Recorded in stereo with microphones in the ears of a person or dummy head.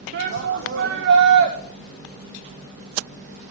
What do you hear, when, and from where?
0.1 s a shout: 65° right (ahead or behind), 1.3 m